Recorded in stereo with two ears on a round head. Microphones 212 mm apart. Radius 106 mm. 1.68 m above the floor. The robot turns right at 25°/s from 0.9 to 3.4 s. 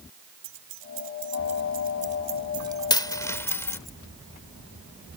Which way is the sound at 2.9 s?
20° left (ahead or behind).